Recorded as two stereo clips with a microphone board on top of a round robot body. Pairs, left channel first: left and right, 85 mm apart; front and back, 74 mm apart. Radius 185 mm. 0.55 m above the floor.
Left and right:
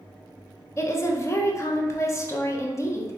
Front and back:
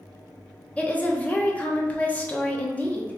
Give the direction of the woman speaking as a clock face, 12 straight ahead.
10 o'clock.